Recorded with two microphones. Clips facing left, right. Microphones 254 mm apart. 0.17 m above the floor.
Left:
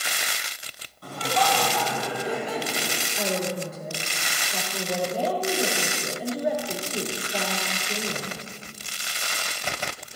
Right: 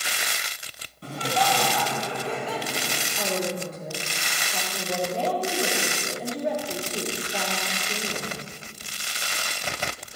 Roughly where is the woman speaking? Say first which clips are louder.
Even; centre.